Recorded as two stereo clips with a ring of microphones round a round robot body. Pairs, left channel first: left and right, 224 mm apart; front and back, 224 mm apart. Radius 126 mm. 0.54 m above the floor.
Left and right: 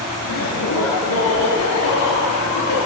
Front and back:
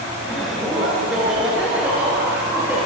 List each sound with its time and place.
0.2 s laughter: 90° left, 6.5 m; by 2.8 s 100° left, 10.5 m